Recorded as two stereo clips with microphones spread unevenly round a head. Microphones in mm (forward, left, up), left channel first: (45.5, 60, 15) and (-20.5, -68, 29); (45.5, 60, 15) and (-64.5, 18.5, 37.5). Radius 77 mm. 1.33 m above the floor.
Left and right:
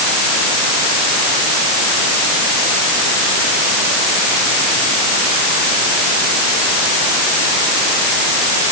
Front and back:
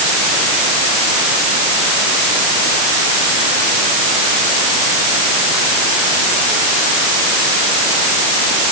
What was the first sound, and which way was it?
Only background noise.